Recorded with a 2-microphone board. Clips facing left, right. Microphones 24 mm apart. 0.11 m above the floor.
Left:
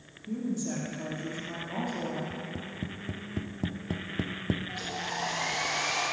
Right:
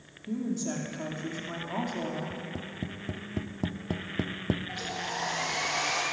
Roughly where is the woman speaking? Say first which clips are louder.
Right 1 dB; centre.